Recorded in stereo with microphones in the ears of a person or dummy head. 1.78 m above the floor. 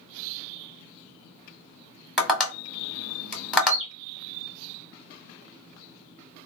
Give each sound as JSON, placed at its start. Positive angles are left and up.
{"t": 2.2, "sound": "tapping", "side_deg": 5, "distance_m": 1.2}
{"t": 3.6, "sound": "a bird", "side_deg": -30, "distance_m": 1.4}